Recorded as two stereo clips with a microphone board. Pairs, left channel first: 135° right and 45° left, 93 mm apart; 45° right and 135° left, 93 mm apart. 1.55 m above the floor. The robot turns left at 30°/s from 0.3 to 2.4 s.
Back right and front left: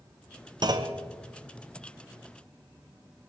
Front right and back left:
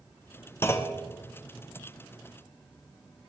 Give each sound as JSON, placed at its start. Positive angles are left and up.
{"t": 0.6, "sound": "a clunk", "azimuth_deg": 15, "distance_m": 0.9}